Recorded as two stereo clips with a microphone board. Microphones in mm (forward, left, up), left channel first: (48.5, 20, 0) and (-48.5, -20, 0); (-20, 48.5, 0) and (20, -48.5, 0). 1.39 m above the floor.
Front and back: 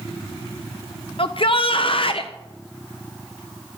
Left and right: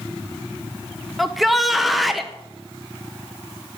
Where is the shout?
20° left, 0.7 m.